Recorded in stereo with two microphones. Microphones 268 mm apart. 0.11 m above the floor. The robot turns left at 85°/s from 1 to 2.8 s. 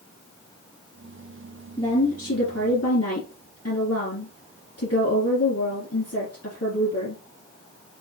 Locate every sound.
1.8 s a woman speaking: 165° left, 3 m; by 7.2 s 80° left, 3 m